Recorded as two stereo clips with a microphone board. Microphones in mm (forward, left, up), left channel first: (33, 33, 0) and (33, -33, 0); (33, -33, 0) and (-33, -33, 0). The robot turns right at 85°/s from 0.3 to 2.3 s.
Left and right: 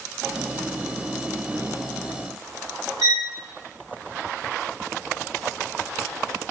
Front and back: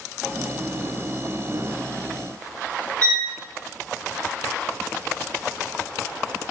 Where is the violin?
70° right, 0.9 m.